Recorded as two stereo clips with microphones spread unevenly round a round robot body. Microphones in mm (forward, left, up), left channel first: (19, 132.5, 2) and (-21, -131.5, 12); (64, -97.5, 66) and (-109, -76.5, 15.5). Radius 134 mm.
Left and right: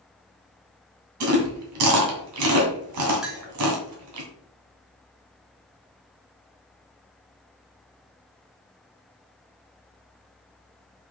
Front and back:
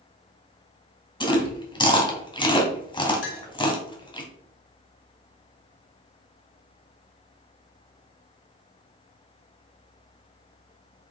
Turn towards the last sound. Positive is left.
turn(degrees=-10)